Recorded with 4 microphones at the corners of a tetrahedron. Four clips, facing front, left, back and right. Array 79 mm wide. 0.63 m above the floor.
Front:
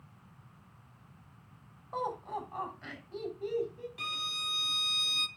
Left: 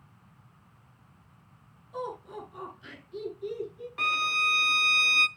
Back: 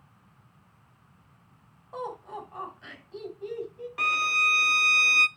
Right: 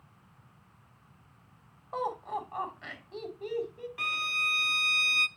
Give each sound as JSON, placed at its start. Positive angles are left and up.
{"t": 1.9, "sound": "laughter", "azimuth_deg": -80, "distance_m": 5.0}
{"t": 4.0, "sound": "a violin", "azimuth_deg": 155, "distance_m": 0.6}